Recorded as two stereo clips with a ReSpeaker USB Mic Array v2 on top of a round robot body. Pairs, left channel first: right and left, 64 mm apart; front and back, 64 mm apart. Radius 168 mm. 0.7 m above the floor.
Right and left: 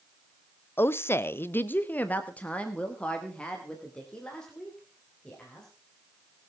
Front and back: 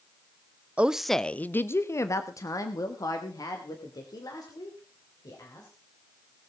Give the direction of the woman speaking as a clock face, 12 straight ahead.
4 o'clock.